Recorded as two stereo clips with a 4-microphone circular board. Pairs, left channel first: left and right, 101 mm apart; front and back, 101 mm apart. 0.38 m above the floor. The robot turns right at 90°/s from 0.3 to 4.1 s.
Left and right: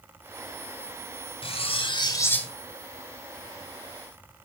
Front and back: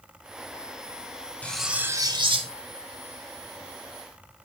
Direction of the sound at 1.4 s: 75° left.